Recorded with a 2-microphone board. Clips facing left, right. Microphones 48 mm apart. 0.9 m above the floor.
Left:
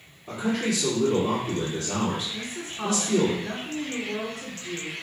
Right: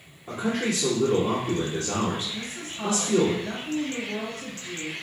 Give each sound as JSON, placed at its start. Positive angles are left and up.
{"t": 0.3, "sound": "a man speaking", "side_deg": -15, "distance_m": 1.8}
{"t": 2.3, "sound": "a woman speaking", "side_deg": 10, "distance_m": 0.9}